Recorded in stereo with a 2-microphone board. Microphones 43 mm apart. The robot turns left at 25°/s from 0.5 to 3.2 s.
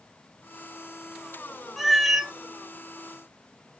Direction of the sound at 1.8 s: Centre (ahead or behind).